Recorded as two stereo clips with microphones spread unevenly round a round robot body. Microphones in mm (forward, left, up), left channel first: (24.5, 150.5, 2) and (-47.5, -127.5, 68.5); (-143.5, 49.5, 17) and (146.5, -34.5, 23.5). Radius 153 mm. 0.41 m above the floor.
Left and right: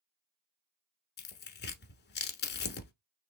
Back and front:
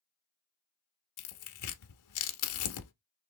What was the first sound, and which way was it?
Tearing paper, 135° left.